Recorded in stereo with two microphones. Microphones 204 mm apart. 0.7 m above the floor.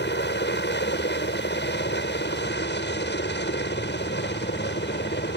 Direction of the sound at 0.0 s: 60° left (ahead or behind).